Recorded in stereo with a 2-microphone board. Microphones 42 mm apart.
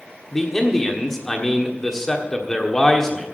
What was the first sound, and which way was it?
A man speaking, 10° left (ahead or behind).